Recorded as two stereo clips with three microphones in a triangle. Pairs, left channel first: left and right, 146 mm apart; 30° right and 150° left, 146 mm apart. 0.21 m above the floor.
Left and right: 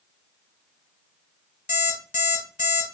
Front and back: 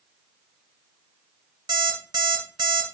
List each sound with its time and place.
1.7 s an alarm clock: 95° left, 1.6 m